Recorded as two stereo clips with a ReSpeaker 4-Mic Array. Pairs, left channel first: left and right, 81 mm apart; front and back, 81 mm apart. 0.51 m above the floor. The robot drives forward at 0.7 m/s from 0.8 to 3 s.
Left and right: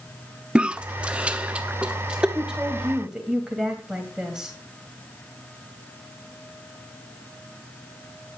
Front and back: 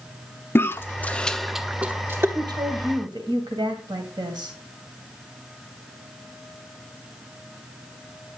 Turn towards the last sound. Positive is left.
turn(degrees=-170)